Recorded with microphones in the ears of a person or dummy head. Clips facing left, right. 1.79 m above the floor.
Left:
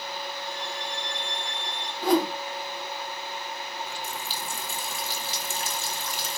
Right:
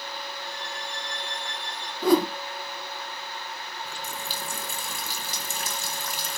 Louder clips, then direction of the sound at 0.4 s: Left 2 dB; centre (ahead or behind).